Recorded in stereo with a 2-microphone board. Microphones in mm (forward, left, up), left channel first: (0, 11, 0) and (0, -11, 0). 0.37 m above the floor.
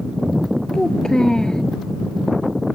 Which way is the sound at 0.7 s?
30° left (ahead or behind).